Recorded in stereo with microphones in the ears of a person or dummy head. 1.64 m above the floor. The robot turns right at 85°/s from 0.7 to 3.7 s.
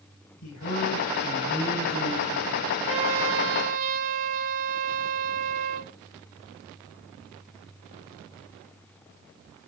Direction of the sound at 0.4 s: 85° left.